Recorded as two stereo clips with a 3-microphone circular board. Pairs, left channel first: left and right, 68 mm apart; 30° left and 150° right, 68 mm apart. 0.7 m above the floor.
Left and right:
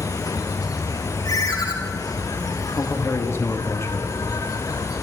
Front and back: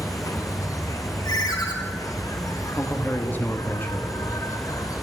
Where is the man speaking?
75° left, 1.1 m.